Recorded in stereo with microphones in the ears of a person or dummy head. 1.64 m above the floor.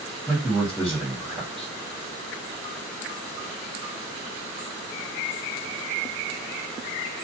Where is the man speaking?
Centre (ahead or behind), 1.8 m.